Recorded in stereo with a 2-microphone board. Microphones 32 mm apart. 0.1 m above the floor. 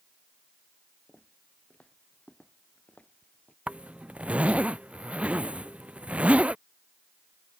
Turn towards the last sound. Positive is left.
turn(degrees=-50)  # may be behind; listen again after turning